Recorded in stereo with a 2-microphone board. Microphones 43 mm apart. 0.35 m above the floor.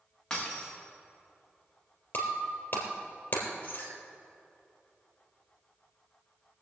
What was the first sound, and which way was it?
Breaking glass, 10° left (ahead or behind).